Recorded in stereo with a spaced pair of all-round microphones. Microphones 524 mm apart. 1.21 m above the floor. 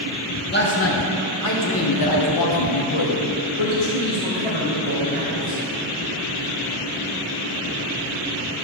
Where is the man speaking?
20° left (ahead or behind), 1.5 m; by 5.6 s 55° left (ahead or behind), 1.9 m.